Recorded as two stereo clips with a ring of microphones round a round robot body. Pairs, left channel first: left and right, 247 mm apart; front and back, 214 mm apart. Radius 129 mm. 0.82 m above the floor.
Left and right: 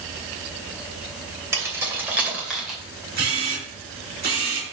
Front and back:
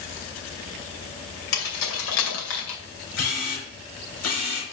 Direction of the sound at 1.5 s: 10° right.